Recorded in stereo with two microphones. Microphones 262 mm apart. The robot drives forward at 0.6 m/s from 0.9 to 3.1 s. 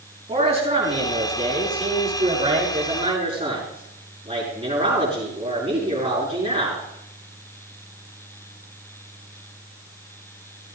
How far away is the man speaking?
About 6 m.